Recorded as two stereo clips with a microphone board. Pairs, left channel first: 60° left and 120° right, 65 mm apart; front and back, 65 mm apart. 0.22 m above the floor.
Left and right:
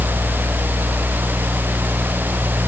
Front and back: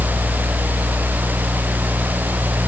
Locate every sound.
Only background noise.